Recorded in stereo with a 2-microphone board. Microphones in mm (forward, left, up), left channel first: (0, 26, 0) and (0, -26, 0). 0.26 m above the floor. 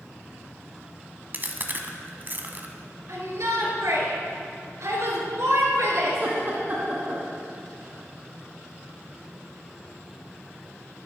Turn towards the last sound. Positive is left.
turn(degrees=-40)  # may be behind; listen again after turning